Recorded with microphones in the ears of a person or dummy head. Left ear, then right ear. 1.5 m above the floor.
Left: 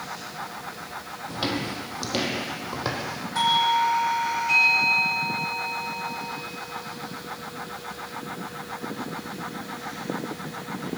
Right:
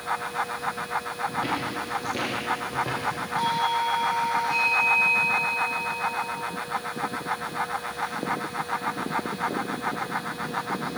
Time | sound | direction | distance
1.3 | footsteps | 45° left (ahead or behind) | 3 m
3.4 | a doorbell | 80° left | 6 m